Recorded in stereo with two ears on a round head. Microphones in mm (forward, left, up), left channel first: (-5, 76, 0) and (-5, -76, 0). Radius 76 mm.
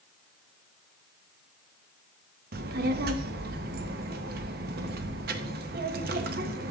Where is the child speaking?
60° right (ahead or behind), 0.9 m.